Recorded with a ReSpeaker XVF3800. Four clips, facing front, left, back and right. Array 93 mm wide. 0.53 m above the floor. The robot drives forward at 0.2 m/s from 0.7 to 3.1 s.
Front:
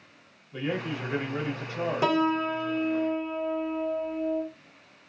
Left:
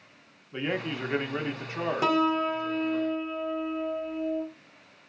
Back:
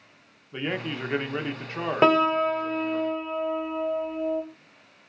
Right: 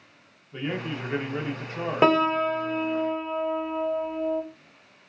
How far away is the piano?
About 0.7 m.